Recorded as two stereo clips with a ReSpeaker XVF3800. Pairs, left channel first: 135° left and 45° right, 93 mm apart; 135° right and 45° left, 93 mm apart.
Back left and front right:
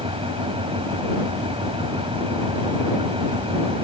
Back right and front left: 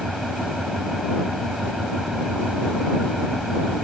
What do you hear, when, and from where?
0.0 s an engine running: 45° right